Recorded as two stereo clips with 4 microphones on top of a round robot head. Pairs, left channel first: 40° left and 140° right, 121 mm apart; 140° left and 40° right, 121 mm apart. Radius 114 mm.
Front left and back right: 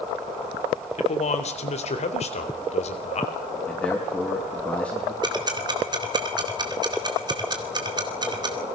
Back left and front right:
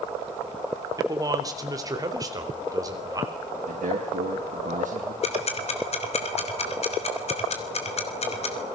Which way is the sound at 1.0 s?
20° left.